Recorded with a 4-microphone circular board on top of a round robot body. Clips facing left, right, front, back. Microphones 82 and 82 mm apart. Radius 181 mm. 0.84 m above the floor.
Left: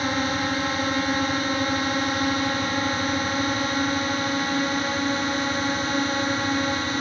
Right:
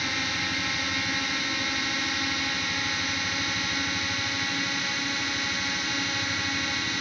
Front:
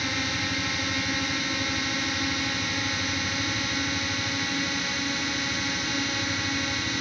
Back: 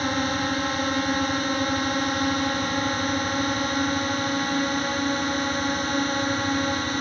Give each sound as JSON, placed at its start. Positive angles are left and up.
{"t": 0.0, "sound": "a drone", "azimuth_deg": 140}